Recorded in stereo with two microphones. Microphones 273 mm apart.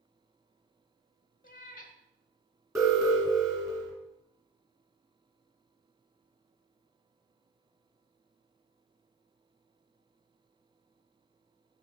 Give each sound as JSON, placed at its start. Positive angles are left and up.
{"t": 1.4, "sound": "a cat meowing", "side_deg": 30, "distance_m": 0.8}
{"t": 2.8, "sound": "an alarm", "side_deg": -10, "distance_m": 2.0}